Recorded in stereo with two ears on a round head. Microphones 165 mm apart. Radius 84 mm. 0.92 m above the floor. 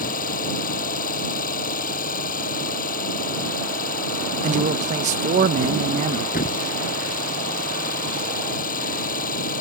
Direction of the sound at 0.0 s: 50° left (ahead or behind).